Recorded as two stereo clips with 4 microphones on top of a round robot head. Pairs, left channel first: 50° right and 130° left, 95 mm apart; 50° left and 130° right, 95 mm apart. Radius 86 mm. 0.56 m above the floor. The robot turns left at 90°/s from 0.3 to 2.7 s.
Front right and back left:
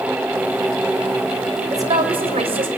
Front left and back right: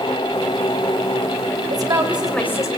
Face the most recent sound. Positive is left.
turn(degrees=100)